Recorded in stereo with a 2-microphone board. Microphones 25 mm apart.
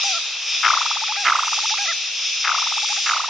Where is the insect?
5° right (ahead or behind), 1.7 m.